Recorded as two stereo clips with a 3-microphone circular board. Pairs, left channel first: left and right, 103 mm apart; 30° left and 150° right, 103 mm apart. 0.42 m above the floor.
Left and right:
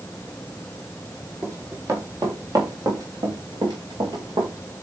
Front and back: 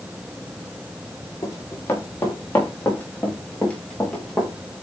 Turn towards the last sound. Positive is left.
turn(degrees=-55)